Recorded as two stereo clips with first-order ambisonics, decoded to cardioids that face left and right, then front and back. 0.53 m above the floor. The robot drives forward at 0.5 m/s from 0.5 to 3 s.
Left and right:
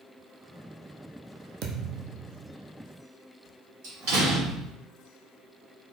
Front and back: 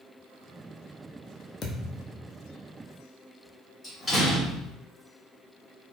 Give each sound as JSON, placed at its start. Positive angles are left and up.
{"t": 1.6, "sound": "a thud", "azimuth_deg": -60, "distance_m": 0.8}
{"t": 3.8, "sound": "a door slam", "azimuth_deg": -90, "distance_m": 2.0}